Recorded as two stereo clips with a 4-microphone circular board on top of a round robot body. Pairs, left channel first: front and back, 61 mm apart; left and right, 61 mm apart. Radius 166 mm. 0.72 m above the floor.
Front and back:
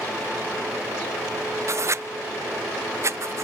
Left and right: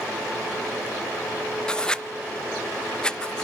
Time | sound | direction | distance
1.7 | writing | 165° left | 0.5 m